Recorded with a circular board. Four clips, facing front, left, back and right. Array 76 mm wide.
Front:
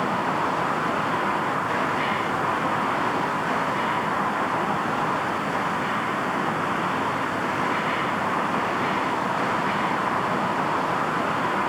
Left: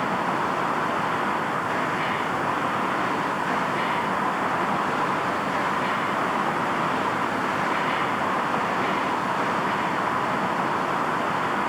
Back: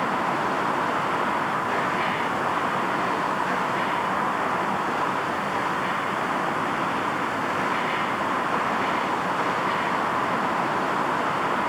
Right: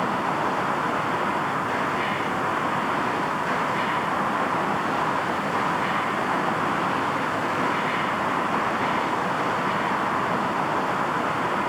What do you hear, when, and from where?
Only background noise.